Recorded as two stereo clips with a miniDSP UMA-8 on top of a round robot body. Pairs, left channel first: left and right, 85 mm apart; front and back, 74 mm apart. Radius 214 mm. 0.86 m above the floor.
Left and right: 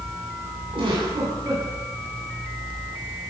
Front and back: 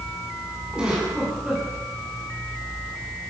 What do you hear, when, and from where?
0.7 s a giggle: 100° right, 8.5 m